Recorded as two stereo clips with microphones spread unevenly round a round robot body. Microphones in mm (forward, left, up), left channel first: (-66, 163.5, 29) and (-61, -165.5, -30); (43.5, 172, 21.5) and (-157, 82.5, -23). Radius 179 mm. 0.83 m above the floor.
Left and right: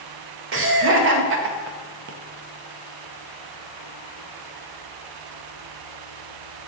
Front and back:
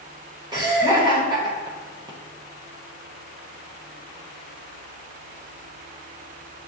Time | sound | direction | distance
0.5 | laughter | 100° right | 0.6 m